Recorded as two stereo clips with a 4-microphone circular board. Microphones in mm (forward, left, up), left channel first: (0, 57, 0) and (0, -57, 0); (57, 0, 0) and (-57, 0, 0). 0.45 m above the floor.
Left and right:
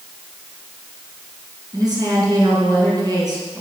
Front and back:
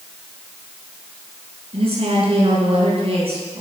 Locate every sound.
1.7 s a woman speaking: 145° right, 5 m